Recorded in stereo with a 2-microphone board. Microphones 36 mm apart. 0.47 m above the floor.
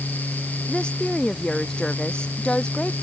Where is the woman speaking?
25° left (ahead or behind).